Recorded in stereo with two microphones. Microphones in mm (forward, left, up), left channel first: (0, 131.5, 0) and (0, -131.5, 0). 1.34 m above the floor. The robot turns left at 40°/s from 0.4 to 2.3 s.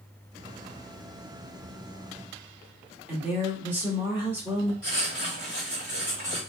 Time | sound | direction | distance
3.1 | a woman speaking | 10° right (ahead or behind) | 2 m
4.8 | writing | 60° right (ahead or behind) | 2.5 m